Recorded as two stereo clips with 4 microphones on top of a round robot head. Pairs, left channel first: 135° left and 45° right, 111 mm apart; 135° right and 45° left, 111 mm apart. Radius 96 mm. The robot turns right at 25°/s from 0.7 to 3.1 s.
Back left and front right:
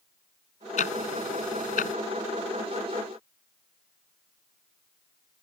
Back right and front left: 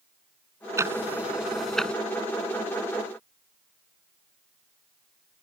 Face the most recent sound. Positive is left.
turn(degrees=175)